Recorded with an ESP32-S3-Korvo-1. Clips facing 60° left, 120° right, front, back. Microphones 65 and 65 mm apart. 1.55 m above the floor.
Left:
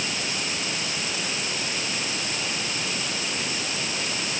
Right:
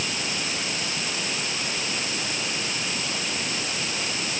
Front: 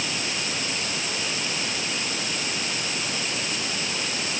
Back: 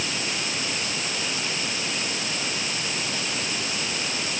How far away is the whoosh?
No whoosh in this recording.